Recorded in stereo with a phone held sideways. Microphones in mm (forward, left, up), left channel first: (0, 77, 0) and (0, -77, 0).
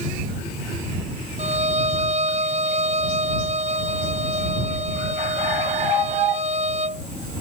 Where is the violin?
45° right (ahead or behind).